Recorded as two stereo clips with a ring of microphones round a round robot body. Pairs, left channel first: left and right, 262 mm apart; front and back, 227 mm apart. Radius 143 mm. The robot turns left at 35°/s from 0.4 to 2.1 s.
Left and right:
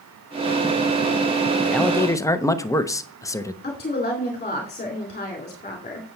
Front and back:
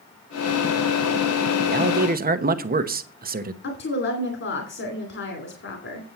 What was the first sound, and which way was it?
A man speaking, straight behind.